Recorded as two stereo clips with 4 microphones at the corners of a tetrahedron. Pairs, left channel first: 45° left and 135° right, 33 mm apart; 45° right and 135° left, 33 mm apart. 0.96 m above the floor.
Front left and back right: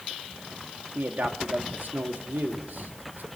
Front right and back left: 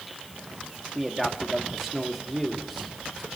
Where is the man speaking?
140° right, 2 m.